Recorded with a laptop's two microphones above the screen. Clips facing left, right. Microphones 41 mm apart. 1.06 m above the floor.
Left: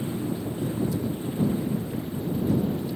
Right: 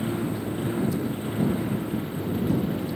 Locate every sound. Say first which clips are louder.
0.0 s a lawn mower: right 2 dB; 40° right (ahead or behind); by 3.0 s 50° right (ahead or behind)